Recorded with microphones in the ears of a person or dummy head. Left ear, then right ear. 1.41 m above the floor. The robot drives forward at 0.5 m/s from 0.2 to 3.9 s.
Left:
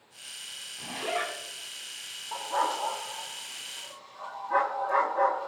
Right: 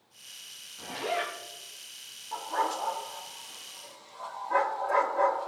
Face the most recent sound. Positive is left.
turn(degrees=5)  # may be behind; listen again after turning